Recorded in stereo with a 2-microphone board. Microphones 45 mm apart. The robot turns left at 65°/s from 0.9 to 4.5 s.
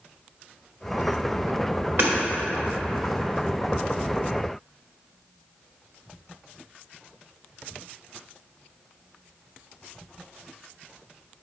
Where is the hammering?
55° right (ahead or behind), 1.6 m; by 2.1 s 50° right (ahead or behind), 1.6 m.